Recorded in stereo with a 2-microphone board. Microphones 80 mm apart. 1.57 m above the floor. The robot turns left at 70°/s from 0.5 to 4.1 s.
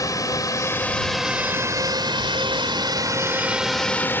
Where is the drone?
45° left (ahead or behind); by 4.2 s 25° left (ahead or behind).